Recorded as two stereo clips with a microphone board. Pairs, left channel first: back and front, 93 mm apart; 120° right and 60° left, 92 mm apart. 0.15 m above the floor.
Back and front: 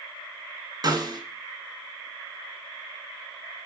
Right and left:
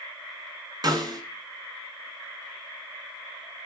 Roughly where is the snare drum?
Ahead left.